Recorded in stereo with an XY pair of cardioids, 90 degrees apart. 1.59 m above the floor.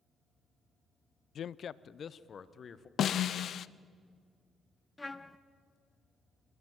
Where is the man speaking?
65° left, 0.5 m; by 2.9 s 50° left, 1.6 m.